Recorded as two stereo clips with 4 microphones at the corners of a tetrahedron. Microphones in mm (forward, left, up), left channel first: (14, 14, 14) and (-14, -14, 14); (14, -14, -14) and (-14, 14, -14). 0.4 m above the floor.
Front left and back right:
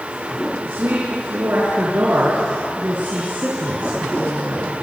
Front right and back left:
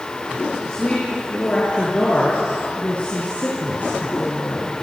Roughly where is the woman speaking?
Right.